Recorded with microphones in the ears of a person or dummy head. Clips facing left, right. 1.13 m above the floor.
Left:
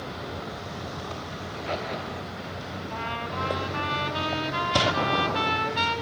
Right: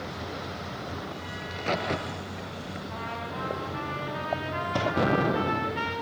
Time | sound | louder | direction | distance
1.4 | a crack | right 3 dB | 55° right (ahead or behind) | 3 m
2.9 | a trumpet | left 2 dB | 50° left (ahead or behind) | 6.5 m
5.0 | an explosion | right 2 dB | 25° right (ahead or behind) | 0.6 m